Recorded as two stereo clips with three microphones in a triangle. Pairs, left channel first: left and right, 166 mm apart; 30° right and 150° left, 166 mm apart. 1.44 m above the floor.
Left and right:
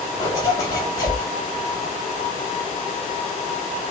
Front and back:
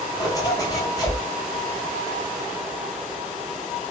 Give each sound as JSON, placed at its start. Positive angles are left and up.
{"t": 0.2, "sound": "a zipper", "azimuth_deg": 30, "distance_m": 1.6}